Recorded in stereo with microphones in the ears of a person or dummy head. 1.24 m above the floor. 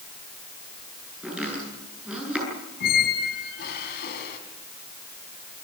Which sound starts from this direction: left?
A squeak, at 2.8 s.